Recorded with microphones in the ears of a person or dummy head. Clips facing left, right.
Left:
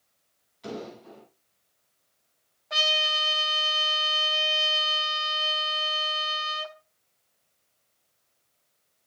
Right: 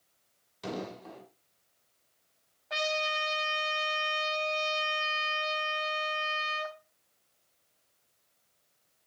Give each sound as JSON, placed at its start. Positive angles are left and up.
{"t": 0.6, "sound": "an explosion", "side_deg": -70, "distance_m": 7.5}
{"t": 2.7, "sound": "a trumpet", "side_deg": 0, "distance_m": 3.5}